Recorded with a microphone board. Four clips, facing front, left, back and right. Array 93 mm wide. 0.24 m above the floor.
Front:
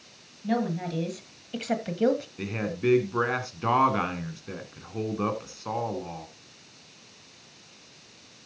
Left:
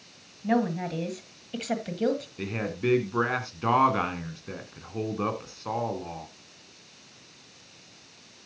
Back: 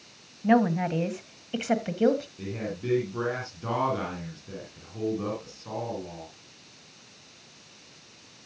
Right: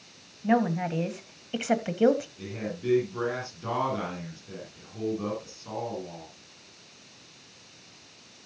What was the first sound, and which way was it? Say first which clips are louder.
A woman speaking: right 1 dB, back 6 dB; 165° right.